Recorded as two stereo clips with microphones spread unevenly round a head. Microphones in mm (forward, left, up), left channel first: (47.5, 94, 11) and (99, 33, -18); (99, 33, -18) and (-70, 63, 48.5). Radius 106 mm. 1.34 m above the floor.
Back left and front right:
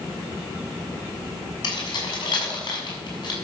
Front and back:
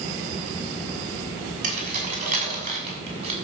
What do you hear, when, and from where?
1.6 s keys jangling: 130° left, 6 m; by 3.3 s 125° left, 6.5 m